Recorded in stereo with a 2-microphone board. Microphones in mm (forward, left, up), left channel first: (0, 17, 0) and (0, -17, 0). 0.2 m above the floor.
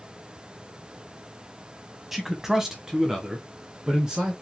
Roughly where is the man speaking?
Centre.